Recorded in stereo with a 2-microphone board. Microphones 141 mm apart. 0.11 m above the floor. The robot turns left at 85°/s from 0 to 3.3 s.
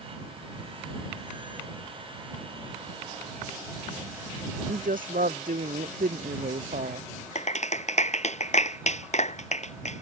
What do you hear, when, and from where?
4.7 s a woman speaking: 80° right
7.3 s a clap: 55° left (ahead or behind)